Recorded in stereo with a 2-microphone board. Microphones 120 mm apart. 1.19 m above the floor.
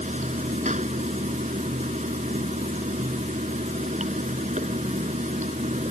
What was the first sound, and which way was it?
Running water, 90° right.